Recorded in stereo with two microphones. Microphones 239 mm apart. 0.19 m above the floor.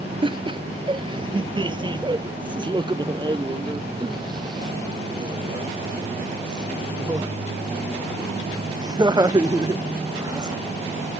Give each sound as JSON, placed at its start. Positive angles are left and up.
{"t": 0.2, "sound": "laughter", "side_deg": -20}